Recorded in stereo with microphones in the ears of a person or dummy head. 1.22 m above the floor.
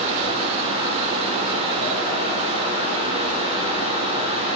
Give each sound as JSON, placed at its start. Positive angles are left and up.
{"t": 0.0, "sound": "a fan", "side_deg": -30, "distance_m": 3.0}